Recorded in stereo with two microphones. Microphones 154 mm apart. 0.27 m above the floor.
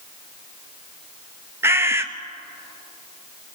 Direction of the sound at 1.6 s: 15° right (ahead or behind).